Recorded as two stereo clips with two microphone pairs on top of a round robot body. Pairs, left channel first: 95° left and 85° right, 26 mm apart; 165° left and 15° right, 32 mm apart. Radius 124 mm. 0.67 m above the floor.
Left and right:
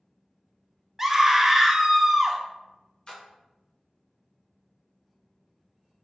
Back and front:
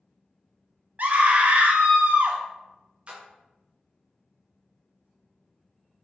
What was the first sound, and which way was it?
A scream, 10° right.